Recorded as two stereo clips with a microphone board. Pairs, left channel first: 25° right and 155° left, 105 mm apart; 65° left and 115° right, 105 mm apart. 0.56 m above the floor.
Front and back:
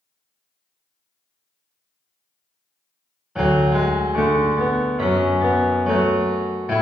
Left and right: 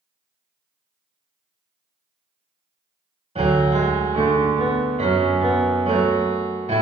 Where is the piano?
120° right, 0.7 m.